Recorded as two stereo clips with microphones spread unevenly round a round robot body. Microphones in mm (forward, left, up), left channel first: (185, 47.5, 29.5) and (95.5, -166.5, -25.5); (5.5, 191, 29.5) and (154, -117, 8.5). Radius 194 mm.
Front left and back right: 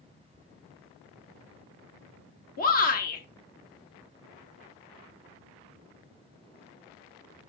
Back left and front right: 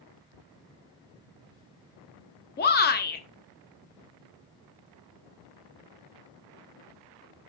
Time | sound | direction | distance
2.6 | a shout | 100° left | 0.8 m